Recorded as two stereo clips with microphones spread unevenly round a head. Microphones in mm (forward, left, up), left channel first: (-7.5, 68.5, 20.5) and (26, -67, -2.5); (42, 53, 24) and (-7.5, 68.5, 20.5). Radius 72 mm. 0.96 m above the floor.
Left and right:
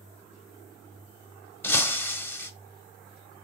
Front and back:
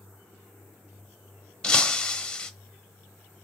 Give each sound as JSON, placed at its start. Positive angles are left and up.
{"t": 1.6, "sound": "breaking glass", "azimuth_deg": 45, "distance_m": 0.9}